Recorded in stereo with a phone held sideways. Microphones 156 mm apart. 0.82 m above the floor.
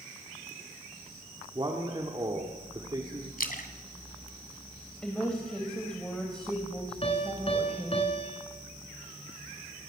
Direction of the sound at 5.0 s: 5° left (ahead or behind).